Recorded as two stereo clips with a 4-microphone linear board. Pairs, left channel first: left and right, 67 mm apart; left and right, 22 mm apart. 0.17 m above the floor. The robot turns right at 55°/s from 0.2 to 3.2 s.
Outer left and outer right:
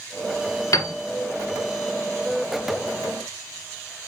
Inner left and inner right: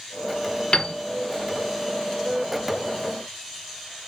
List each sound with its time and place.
0.7 s a piano: 55° left (ahead or behind), 0.6 m; by 0.9 s 60° left (ahead or behind), 0.6 m